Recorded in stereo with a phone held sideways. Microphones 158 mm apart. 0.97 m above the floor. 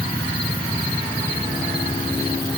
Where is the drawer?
I don't hear a drawer.